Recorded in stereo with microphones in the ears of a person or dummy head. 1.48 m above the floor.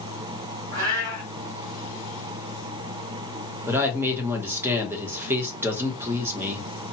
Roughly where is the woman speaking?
Centre.